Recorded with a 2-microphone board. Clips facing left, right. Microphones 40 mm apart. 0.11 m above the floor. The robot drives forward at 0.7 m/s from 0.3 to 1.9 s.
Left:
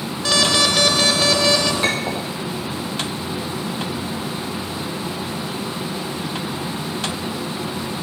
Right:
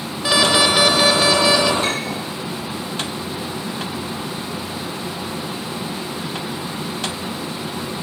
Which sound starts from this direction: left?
A clink, at 1.8 s.